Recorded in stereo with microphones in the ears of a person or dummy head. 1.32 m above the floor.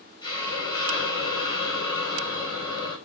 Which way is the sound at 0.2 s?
30° left (ahead or behind).